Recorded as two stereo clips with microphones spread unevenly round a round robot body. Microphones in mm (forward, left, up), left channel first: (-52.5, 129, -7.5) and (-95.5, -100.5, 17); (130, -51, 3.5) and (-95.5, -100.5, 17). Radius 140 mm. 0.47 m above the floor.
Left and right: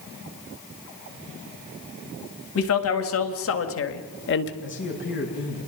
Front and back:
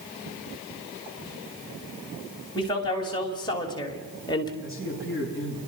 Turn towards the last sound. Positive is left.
turn(degrees=115)